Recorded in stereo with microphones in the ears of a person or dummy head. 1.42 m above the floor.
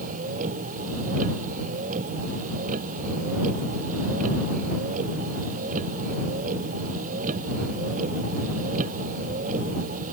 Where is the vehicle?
45° right (ahead or behind).